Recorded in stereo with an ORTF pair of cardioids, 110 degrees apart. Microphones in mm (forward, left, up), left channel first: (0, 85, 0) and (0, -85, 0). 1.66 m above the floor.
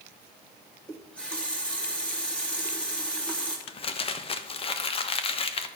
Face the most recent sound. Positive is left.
turn(degrees=35)